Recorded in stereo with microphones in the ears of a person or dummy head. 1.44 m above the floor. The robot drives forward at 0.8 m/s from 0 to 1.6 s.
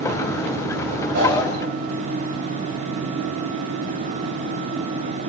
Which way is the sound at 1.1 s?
55° right (ahead or behind).